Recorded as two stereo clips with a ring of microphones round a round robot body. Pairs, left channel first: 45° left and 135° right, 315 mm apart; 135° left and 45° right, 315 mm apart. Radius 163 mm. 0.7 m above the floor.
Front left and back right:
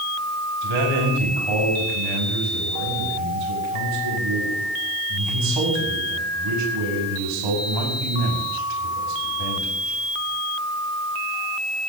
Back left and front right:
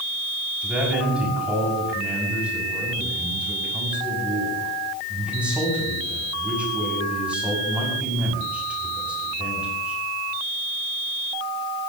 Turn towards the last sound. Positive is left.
turn(degrees=-130)